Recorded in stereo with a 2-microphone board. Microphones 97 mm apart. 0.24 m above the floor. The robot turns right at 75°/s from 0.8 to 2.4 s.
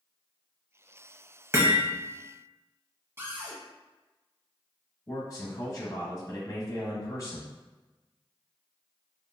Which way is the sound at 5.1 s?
35° left (ahead or behind).